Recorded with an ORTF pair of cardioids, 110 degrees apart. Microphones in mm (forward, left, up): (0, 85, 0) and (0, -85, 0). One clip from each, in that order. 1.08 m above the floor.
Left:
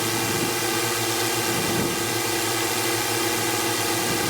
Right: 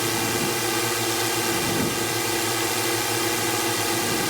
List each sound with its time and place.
0.0 s a drone: straight ahead